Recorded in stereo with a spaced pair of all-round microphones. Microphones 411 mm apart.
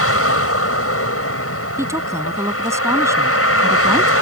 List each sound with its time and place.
0.0 s a vehicle: 35° left (ahead or behind)
1.8 s a woman speaking: 5° right (ahead or behind)